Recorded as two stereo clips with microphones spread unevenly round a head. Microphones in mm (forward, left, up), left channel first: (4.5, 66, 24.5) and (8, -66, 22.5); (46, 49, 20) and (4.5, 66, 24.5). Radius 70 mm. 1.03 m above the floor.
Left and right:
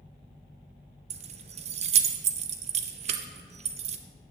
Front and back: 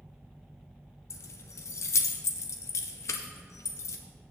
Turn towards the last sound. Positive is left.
turn(degrees=-45)